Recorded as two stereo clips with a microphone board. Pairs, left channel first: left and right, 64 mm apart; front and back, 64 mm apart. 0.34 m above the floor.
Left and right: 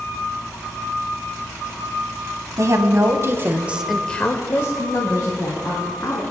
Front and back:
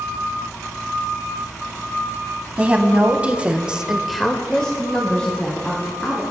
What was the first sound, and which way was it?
A woman speaking, 115° right.